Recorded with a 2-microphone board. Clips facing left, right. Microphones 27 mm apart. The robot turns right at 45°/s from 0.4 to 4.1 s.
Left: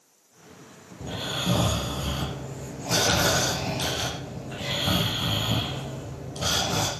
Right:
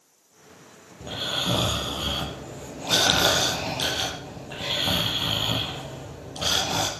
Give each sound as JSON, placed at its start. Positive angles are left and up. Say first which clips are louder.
{"t": 1.0, "sound": "snoring", "louder": "right 2 dB", "azimuth_deg": -160, "distance_m": 3.5}